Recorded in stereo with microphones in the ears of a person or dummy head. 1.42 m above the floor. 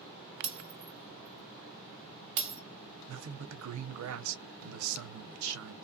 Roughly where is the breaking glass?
Right.